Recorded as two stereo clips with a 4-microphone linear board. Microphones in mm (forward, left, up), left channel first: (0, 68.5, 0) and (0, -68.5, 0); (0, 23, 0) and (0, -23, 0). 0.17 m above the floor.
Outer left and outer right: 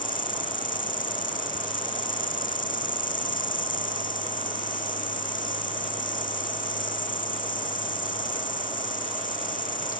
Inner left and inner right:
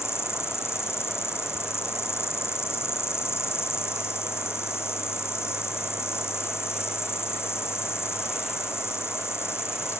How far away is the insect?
About 1.9 m.